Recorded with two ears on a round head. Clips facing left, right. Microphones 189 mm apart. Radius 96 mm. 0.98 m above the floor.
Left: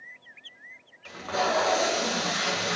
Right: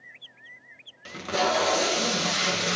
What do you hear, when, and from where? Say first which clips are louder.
1.1 s tape being pulled: right 2 dB; 35° right (ahead or behind), 0.8 m